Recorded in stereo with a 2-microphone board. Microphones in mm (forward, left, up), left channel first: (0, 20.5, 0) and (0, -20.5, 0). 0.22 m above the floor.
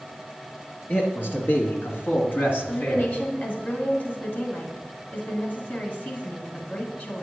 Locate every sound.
0.9 s a man speaking: 55° left (ahead or behind), 3 m; by 3.1 s 40° left (ahead or behind), 1.8 m
2.7 s a woman speaking: 45° left (ahead or behind), 2 m